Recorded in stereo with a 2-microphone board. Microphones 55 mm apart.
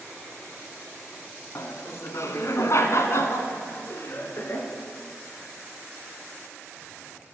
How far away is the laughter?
About 2.5 m.